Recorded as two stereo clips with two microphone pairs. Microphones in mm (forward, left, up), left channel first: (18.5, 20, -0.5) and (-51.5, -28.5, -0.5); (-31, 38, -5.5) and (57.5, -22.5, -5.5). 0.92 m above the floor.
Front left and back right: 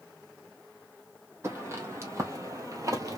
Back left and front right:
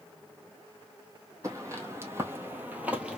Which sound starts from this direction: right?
Footsteps, at 1.4 s.